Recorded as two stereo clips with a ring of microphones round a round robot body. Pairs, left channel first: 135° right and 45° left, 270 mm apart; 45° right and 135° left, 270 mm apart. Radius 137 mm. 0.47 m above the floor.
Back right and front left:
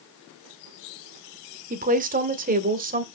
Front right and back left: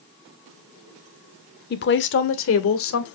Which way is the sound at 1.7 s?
5° right.